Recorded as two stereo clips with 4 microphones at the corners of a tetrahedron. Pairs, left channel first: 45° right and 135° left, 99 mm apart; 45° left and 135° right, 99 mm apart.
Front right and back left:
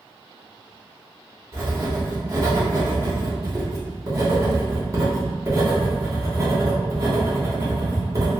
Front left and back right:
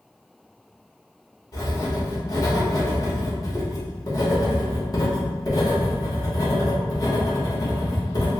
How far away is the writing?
About 1.1 m.